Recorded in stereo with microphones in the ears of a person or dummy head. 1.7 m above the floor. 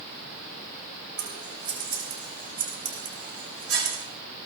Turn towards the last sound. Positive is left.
turn(degrees=-55)  # may be behind; listen again after turning